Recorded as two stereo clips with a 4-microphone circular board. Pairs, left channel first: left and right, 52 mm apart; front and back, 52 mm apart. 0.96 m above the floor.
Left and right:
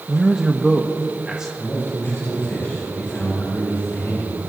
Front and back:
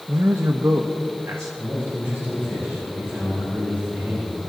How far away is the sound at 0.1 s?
About 0.6 m.